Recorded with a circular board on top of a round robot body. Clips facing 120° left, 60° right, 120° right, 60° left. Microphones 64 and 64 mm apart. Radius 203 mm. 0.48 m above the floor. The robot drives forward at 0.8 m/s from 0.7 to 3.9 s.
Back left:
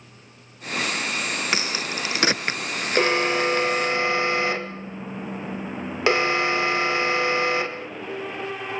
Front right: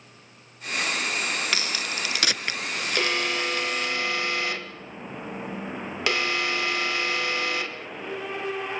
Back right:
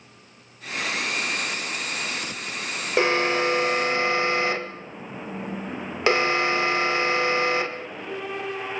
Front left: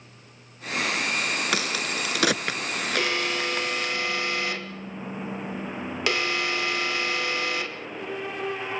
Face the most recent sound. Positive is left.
turn(degrees=180)